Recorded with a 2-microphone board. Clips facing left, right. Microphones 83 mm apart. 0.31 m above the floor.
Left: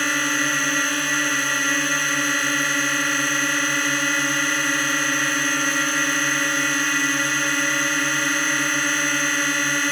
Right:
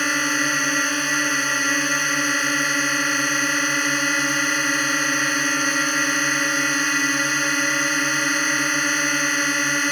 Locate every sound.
0.0 s a drone: 5° right (ahead or behind)